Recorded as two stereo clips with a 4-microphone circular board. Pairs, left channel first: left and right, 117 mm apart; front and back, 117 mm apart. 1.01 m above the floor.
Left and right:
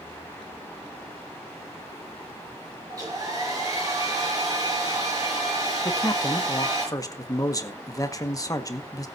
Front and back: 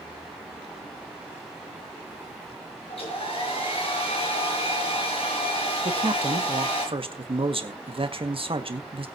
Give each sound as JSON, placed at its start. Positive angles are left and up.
{"t": 2.9, "sound": "a hair dryer", "azimuth_deg": -30, "distance_m": 5.5}
{"t": 5.8, "sound": "a man speaking", "azimuth_deg": 145, "distance_m": 1.6}